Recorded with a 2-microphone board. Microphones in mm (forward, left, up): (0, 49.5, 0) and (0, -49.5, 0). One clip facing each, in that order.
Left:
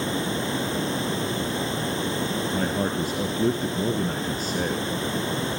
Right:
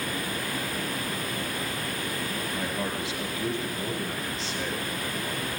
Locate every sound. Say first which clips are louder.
0.0 s running water: left 6 dB; 25° left (ahead or behind), 0.7 m
2.5 s a man speaking: left 6 dB; 45° left (ahead or behind), 2 m